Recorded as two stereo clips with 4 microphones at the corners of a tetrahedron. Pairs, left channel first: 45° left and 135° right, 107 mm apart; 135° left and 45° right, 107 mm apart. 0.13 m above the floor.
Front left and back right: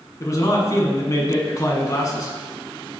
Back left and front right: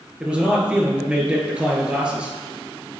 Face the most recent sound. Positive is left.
turn(degrees=25)